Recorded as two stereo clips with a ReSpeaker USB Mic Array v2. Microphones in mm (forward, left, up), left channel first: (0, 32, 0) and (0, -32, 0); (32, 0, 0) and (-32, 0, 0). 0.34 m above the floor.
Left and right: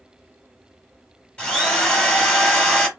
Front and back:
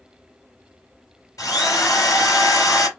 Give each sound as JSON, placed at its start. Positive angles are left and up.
{"t": 1.4, "sound": "a drill", "azimuth_deg": 20, "distance_m": 3.0}